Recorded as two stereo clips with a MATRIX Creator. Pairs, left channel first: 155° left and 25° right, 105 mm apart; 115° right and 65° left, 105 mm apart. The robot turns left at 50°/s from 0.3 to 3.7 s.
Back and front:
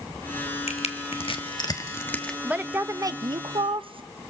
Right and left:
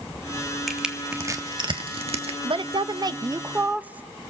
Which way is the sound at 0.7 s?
160° left.